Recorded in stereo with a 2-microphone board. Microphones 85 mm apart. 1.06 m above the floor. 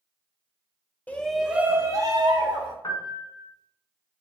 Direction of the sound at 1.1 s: 20° left (ahead or behind).